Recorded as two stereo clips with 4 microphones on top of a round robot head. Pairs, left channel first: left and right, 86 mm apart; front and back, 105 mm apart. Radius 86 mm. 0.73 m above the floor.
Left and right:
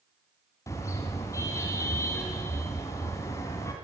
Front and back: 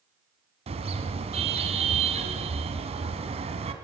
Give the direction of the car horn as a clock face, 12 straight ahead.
7 o'clock.